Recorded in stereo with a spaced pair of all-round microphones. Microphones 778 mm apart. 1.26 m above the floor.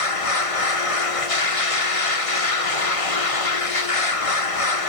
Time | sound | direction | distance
0.0 | a machine running | 45° left (ahead or behind) | 1.5 m